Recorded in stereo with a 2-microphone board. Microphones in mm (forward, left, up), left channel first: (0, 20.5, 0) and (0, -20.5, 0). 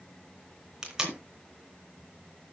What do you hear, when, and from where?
0.8 s tape being pulled: 15° right (ahead or behind), 3 m